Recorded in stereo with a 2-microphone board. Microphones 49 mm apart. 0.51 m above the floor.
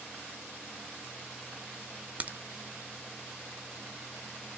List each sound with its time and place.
2.2 s a crack: 35° right (ahead or behind), 0.5 m